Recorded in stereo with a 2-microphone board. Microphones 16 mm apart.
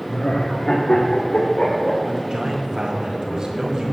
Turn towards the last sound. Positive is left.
turn(degrees=-45)  # may be behind; listen again after turning